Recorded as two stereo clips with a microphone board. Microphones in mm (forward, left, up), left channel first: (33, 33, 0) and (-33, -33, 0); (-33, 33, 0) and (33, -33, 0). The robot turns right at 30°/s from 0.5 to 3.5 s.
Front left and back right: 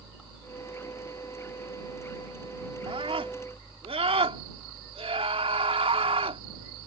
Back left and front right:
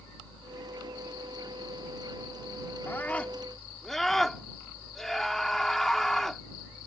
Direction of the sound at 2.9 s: 155° right.